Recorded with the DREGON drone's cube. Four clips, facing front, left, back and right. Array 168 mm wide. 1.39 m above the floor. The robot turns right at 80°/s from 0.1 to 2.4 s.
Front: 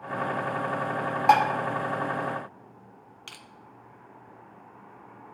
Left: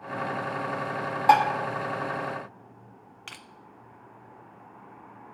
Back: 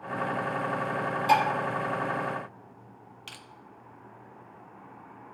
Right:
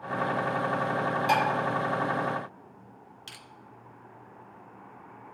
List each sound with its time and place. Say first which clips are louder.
1.3 s dishes clattering: left 8 dB, front 4 dB; 40° left, 1.2 m; by 1.4 s 55° left, 1.2 m
3.3 s crushing: left 6 dB, even; 80° left, 0.8 m